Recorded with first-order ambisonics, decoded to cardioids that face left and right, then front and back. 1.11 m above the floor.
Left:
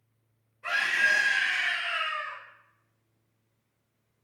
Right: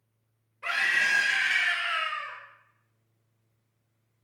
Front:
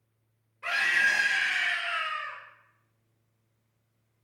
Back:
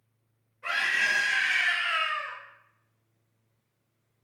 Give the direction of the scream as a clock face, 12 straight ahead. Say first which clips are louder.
Even, front 1 dB; 2 o'clock.